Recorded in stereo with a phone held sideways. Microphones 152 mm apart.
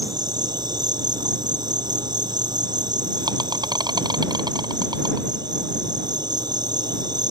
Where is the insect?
25° right (ahead or behind).